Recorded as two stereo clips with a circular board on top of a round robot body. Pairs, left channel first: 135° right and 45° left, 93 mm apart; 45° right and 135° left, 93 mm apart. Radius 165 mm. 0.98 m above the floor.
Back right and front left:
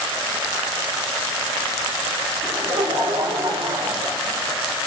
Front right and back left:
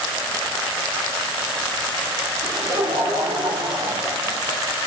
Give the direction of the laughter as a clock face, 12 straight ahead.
9 o'clock.